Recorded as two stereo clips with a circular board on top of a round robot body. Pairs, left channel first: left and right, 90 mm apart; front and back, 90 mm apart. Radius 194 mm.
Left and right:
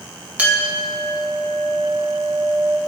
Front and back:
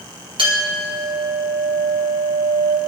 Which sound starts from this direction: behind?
A clink, at 0.4 s.